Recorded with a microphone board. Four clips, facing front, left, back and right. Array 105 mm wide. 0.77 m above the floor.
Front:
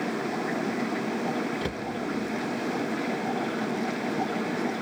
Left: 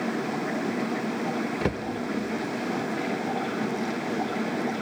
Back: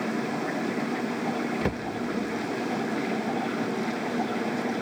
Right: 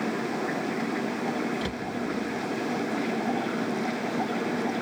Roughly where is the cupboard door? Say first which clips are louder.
Left 4 dB, back 3 dB; behind left.